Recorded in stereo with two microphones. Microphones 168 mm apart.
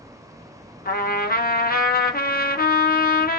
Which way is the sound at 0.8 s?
60° left (ahead or behind).